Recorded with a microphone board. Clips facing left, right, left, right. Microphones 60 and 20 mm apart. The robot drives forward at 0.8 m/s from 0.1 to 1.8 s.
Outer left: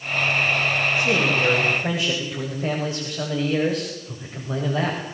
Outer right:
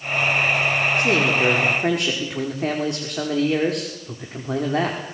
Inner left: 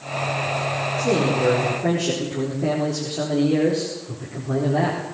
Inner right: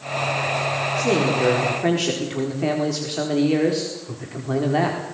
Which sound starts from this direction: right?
A man speaking, at 1.0 s.